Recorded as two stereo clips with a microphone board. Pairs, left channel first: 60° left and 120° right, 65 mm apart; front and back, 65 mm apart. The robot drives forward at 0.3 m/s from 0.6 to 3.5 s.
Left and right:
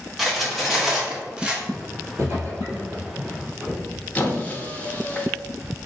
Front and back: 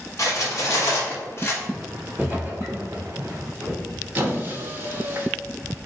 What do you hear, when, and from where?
0.2 s cutlery clinking: 35° right, 0.9 m; by 1.6 s 50° right, 0.7 m
1.7 s footsteps: 100° right, 1.7 m; by 3.8 s 175° left, 1.9 m
4.2 s a squeak: 125° left, 0.6 m